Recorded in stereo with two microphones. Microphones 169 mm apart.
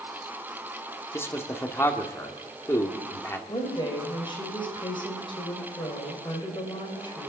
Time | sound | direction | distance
1.1 | a man speaking | 15° left (ahead or behind) | 1.7 m
3.5 | a woman speaking | 30° left (ahead or behind) | 3 m